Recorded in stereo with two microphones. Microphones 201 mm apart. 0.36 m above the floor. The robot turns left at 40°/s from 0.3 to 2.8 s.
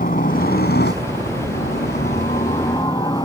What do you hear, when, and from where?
0.0 s a helicopter: 125° left; by 3.2 s 25° left